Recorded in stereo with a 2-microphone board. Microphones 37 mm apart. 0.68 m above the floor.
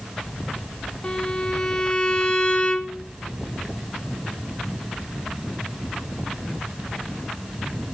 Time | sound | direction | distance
1.0 | a violin | 20° left (ahead or behind) | 0.8 m